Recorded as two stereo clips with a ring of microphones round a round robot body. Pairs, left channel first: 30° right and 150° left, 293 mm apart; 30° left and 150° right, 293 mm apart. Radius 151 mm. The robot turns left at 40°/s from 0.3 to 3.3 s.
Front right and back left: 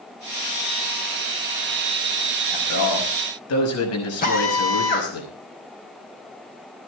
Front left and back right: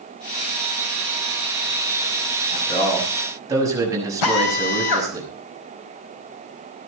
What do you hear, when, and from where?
2.5 s a man speaking: 40° right, 5.5 m; by 5.2 s 70° right, 5.5 m
4.2 s a drill: 30° left, 4 m